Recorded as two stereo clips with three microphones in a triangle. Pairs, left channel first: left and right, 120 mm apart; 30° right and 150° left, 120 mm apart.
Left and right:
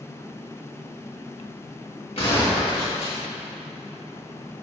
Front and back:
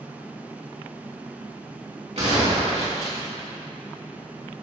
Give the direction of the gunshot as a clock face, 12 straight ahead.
8 o'clock.